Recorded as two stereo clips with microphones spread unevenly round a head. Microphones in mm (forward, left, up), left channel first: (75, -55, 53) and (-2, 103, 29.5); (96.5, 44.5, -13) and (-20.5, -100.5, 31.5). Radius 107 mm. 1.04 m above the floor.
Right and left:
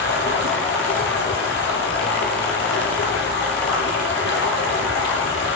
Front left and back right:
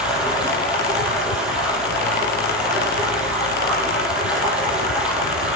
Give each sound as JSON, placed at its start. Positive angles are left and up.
{"t": 0.0, "sound": "running water", "azimuth_deg": -45, "distance_m": 7.0}